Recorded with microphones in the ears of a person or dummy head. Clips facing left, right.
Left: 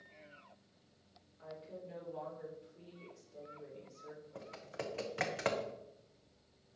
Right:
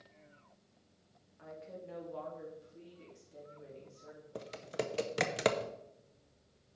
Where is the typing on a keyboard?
45° right (ahead or behind), 0.7 m.